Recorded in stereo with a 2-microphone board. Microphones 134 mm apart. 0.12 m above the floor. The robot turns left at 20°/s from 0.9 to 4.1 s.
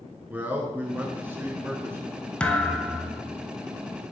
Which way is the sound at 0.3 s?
10° right (ahead or behind).